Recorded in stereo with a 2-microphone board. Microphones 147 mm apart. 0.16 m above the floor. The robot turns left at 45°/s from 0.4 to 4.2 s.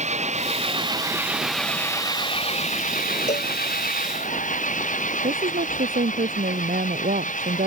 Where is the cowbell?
55° left (ahead or behind); by 3.5 s 45° left (ahead or behind).